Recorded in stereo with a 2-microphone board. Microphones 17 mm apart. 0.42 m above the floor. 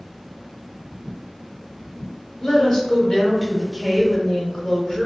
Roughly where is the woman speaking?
Left.